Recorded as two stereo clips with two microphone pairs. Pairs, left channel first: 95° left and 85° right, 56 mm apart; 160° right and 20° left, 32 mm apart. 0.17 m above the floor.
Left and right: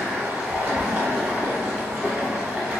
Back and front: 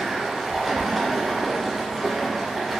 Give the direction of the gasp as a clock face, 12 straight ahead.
I don't hear a gasp.